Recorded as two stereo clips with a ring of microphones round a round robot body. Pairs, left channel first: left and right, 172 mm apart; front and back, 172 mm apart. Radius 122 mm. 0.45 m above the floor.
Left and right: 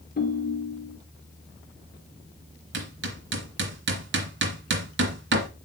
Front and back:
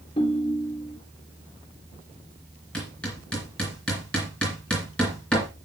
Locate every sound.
0.2 s a ringtone: 60° left, 3 m
2.7 s hammering: 85° right, 2 m